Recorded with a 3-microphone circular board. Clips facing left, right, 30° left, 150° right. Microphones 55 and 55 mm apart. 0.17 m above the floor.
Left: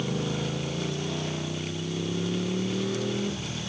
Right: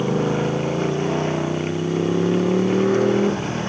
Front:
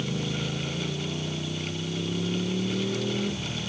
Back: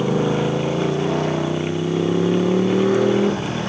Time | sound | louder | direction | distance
0.0 | a motorcycle | right 10 dB, back 12 dB | 135° right | ?